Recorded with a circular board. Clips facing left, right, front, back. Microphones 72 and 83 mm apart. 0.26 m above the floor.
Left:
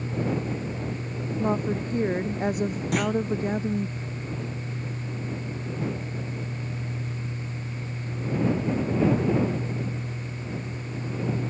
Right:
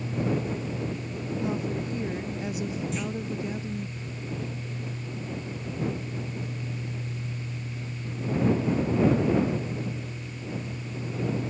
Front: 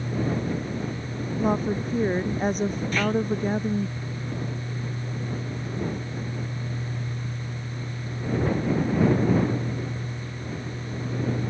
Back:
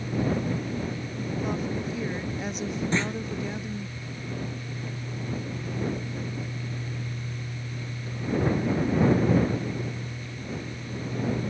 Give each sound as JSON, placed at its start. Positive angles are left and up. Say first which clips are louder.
{"t": 1.4, "sound": "a woman speaking", "louder": "left 5 dB, front 7 dB", "azimuth_deg": 45}
{"t": 2.9, "sound": "a clunk", "louder": "left 7 dB, front 2 dB", "azimuth_deg": 115}